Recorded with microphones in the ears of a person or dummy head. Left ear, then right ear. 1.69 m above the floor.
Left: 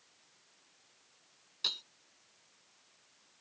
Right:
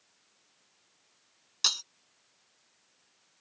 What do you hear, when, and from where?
1.6 s breaking glass: 45° right (ahead or behind)